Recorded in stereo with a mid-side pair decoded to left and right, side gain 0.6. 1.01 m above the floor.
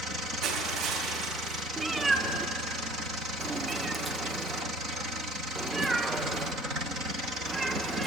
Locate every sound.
0.4 s crushing: 65° right, 5.5 m
1.8 s a cat meowing: 20° right, 1.2 m